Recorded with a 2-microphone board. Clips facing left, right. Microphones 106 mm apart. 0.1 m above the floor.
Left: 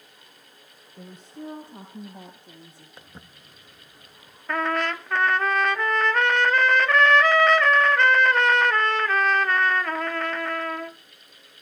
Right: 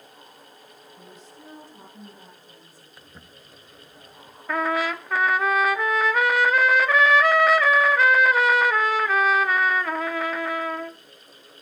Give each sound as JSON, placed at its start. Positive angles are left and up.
{"t": 1.0, "sound": "a woman speaking", "side_deg": 55, "distance_m": 3.5}
{"t": 3.0, "sound": "footsteps", "side_deg": 25, "distance_m": 1.8}
{"t": 4.5, "sound": "a trumpet", "side_deg": -5, "distance_m": 0.5}